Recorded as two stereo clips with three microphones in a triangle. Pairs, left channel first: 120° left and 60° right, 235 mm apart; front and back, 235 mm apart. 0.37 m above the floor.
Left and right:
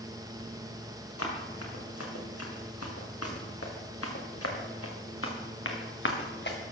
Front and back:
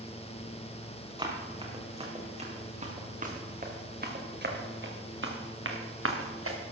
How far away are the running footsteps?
About 3.5 m.